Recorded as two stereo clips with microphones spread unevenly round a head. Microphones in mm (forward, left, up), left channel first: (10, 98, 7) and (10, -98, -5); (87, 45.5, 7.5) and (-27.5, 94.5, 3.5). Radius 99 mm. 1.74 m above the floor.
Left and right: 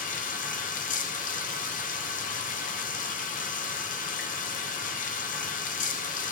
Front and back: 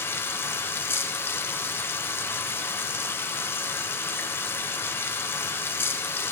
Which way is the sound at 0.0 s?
45° left.